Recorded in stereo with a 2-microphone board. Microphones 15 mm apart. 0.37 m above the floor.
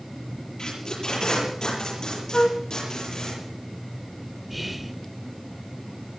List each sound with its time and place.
0.6 s tape being pulled: 55° left (ahead or behind), 8 m
2.3 s a flute: 60° left (ahead or behind), 0.8 m
4.5 s whispering: 10° right (ahead or behind), 1.0 m